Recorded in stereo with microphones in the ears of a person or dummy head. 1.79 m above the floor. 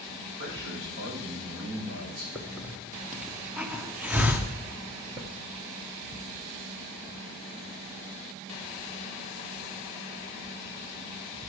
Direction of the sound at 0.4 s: 65° right (ahead or behind).